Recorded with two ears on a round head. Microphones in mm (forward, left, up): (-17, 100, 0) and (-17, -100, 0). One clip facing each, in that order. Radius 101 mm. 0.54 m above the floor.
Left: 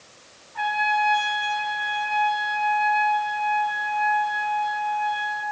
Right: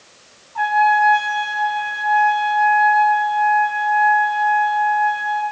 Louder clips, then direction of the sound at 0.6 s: Right 8 dB; 30° left (ahead or behind).